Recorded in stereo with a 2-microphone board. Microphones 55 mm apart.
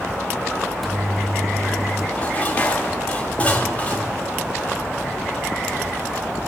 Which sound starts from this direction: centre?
A microwave, at 0.6 s.